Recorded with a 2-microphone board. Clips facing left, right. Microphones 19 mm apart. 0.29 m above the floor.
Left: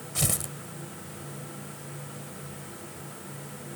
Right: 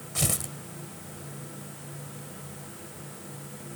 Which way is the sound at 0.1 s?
5° right (ahead or behind).